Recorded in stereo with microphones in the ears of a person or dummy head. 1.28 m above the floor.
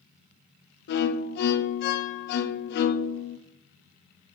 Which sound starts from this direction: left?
A violin, at 0.9 s.